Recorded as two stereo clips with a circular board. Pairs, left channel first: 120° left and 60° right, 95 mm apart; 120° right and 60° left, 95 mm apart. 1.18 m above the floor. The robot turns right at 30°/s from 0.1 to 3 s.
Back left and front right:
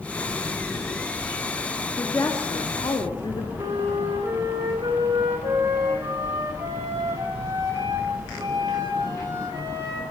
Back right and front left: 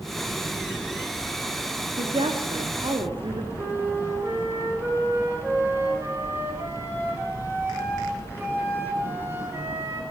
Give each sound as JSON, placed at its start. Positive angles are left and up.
{"t": 2.0, "sound": "a woman speaking", "azimuth_deg": 55, "distance_m": 2.5}
{"t": 3.6, "sound": "a flute", "azimuth_deg": -5, "distance_m": 7.0}